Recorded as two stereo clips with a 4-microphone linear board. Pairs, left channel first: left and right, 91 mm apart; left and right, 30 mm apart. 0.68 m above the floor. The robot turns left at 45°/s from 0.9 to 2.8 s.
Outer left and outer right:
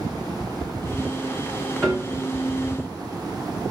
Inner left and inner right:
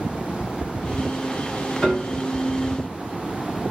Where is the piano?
5° left (ahead or behind), 2.5 m; by 2.2 s 10° right (ahead or behind), 2.5 m.